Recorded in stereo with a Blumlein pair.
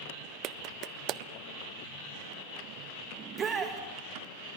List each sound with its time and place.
0.4 s a clap: 35° right, 0.7 m
3.2 s a shout: 25° right, 2.5 m